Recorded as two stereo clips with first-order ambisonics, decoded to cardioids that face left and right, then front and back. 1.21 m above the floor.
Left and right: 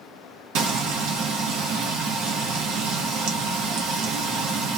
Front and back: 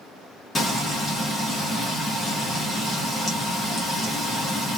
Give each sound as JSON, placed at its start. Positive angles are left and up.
{"t": 0.6, "sound": "frying", "azimuth_deg": -75, "distance_m": 0.8}